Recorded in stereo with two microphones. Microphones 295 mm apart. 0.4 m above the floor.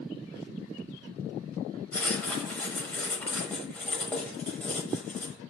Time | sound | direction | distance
1.9 | writing | 5° left (ahead or behind) | 0.6 m